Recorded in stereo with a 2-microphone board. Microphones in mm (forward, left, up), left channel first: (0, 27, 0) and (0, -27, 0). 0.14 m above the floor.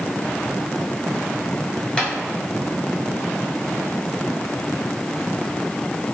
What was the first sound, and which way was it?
Tapping, 20° left (ahead or behind).